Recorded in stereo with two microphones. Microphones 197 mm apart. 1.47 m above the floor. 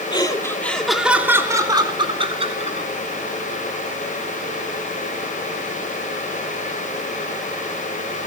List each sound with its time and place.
0.1 s laughter: 20° left (ahead or behind), 3 m; by 2.9 s 35° right (ahead or behind), 5 m